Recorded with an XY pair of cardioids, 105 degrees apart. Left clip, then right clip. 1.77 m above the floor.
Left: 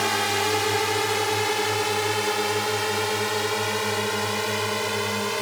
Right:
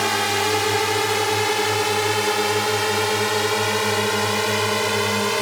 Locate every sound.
0.0 s a drone: 20° right; by 5.4 s 35° right